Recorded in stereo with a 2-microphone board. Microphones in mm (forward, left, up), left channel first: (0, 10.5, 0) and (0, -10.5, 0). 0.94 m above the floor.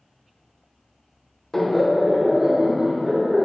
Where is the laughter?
20° left (ahead or behind), 0.8 m; by 3.5 s 40° right (ahead or behind), 1.4 m.